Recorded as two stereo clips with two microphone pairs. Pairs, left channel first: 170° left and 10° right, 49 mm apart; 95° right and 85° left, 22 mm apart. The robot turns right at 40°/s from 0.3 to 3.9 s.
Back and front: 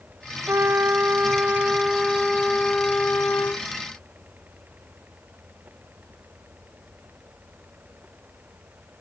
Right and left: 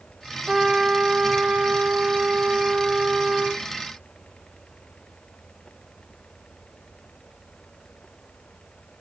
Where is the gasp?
No gasp in this recording.